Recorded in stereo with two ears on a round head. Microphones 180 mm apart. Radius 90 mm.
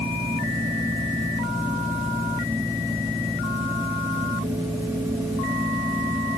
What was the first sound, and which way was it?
Only background noise.